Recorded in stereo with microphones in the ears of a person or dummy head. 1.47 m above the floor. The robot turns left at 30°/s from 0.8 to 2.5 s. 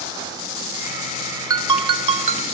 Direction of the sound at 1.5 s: 20° right (ahead or behind).